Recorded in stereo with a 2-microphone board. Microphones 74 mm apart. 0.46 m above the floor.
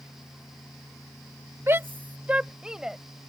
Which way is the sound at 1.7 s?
40° right (ahead or behind).